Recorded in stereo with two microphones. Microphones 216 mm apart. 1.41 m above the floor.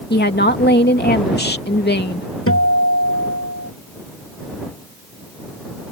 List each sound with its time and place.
0.1 s a woman speaking: 50° left (ahead or behind)
2.5 s a guitar: 85° left